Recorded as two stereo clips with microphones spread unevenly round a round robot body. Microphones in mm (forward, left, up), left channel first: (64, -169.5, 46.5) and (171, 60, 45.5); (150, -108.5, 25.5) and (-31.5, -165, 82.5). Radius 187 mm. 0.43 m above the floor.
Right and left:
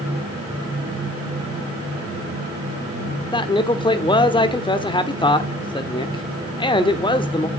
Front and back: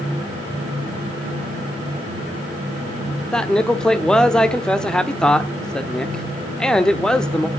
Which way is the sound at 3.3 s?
50° right.